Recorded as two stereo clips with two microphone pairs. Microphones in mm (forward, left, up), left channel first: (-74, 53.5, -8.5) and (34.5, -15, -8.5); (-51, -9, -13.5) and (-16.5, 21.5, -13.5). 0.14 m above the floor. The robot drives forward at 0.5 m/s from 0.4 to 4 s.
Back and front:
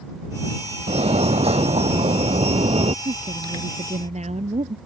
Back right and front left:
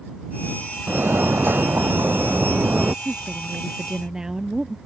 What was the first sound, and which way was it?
A fire alarm, 5° left.